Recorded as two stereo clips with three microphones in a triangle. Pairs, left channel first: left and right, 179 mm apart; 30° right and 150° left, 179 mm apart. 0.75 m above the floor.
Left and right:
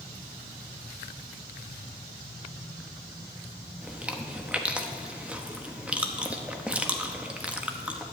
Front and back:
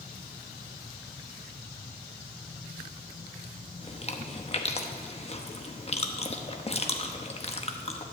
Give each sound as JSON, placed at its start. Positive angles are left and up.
{"t": 3.8, "sound": "chewing", "azimuth_deg": -10, "distance_m": 0.8}